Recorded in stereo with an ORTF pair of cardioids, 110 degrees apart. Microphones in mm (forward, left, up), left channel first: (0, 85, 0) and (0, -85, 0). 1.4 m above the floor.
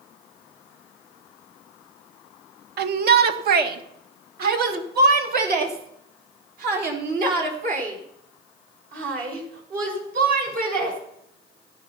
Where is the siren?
I don't hear a siren.